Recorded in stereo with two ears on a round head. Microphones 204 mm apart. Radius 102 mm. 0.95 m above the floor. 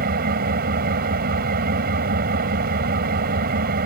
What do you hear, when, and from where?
0.0 s an engine running: 40° right (ahead or behind)